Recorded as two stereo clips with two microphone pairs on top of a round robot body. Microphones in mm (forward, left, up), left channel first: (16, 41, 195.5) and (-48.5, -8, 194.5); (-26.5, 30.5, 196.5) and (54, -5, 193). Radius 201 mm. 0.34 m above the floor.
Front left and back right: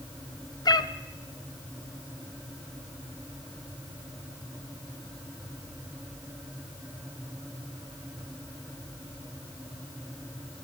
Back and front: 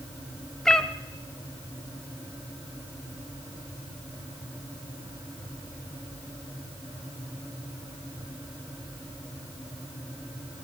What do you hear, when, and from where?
0.7 s a cat meowing: 70° left, 1.4 m